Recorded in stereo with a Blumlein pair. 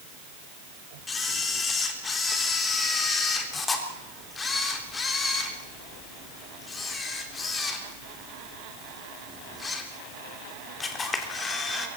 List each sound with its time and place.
1.1 s a camera shutter: 15° left, 3.5 m